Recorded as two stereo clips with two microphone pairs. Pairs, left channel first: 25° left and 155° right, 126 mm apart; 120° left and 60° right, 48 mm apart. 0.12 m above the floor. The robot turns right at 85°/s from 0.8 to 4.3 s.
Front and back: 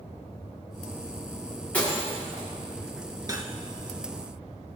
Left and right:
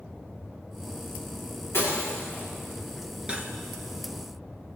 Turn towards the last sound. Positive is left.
turn(degrees=-25)